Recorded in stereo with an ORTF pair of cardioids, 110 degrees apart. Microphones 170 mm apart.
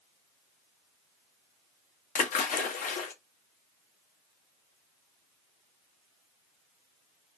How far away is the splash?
About 0.9 m.